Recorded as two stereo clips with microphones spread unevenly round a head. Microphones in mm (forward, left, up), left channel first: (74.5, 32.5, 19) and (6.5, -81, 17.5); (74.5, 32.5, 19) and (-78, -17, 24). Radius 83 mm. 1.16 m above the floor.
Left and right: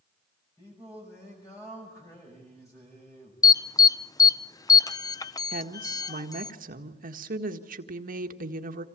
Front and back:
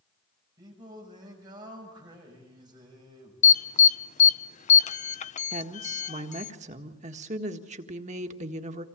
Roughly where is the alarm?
Ahead.